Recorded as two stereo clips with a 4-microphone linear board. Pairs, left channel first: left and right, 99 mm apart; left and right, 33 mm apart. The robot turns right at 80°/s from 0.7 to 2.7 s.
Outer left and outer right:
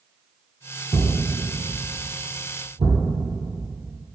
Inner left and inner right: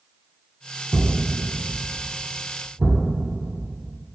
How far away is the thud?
About 1.0 m.